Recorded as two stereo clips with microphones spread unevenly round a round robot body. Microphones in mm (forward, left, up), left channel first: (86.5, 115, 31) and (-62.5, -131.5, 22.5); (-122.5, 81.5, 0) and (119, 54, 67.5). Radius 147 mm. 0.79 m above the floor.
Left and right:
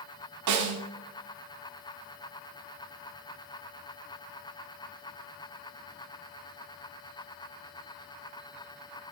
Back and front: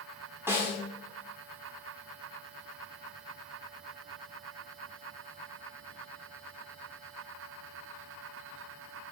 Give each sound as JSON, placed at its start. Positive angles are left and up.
{"t": 0.5, "sound": "a snare drum", "azimuth_deg": -90, "distance_m": 1.6}